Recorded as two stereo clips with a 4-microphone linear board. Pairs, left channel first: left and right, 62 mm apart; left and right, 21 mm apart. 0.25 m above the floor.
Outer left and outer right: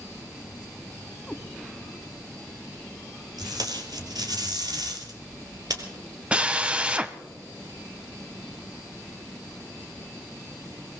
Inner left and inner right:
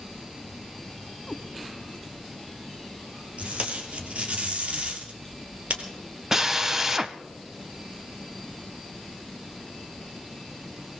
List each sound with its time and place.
1.3 s a cat meowing: 5° left (ahead or behind), 0.7 m
3.4 s tape being pulled: 70° right (ahead or behind), 2 m
6.3 s a drill: 15° right (ahead or behind), 0.7 m